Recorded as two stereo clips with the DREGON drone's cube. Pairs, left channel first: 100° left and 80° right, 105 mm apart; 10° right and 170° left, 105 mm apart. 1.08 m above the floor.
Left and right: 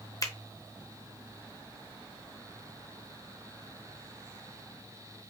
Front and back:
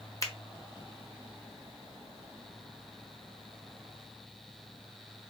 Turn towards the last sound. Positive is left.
turn(degrees=45)